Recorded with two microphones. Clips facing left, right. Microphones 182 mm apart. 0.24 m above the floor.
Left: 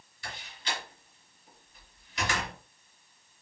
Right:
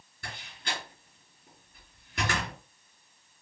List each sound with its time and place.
0.2 s a door slam: 55° right (ahead or behind), 2.5 m